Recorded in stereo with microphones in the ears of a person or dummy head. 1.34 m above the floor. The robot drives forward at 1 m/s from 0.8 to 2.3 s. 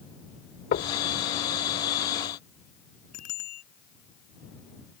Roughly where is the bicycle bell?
Left.